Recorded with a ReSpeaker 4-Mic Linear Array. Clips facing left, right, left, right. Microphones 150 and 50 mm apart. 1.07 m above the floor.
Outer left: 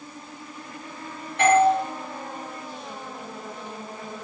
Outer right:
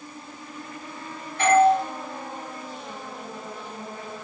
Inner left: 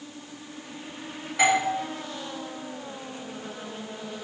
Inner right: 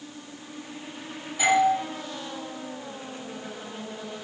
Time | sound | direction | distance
1.4 | a doorbell | 80° left | 5.5 m